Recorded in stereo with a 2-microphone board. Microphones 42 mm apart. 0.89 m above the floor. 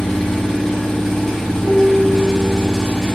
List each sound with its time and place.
0.0 s an engine running: 5° left (ahead or behind), 0.9 m
1.6 s a piano: 65° right (ahead or behind), 1.0 m